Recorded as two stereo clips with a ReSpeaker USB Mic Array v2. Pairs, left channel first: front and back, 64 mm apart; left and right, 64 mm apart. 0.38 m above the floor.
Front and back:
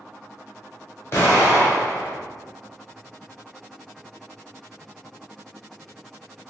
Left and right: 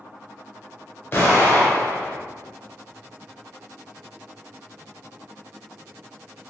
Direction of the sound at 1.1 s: 45° left.